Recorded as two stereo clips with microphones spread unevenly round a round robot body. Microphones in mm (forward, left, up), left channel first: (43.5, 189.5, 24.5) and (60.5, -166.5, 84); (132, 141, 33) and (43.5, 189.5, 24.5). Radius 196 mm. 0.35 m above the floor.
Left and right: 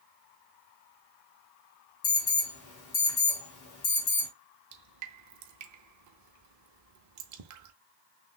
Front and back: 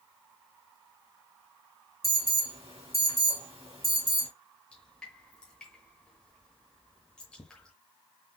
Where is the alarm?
140° left, 3.5 m.